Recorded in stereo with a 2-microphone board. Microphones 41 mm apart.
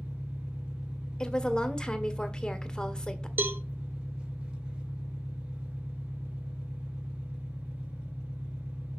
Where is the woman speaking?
20° left (ahead or behind), 1.5 m.